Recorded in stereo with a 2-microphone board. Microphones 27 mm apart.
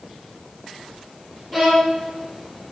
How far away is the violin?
About 4.5 m.